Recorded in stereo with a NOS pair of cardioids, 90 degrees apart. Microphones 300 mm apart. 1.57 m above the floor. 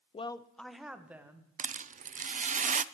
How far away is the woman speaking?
About 0.6 m.